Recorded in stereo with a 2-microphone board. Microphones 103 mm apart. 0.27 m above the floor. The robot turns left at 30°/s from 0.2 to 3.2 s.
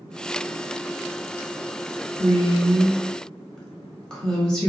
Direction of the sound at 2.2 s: 10° right (ahead or behind).